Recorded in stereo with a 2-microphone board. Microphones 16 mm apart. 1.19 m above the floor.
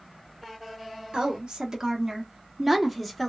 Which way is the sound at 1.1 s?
65° right (ahead or behind).